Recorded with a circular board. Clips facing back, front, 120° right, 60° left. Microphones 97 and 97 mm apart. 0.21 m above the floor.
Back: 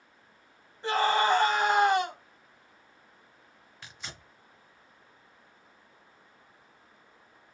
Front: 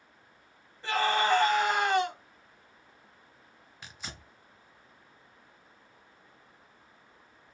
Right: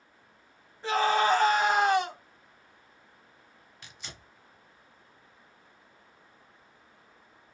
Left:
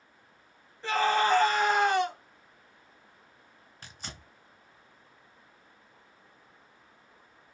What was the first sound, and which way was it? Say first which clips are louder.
A scream: back 2 dB, right 1 dB; 175° right.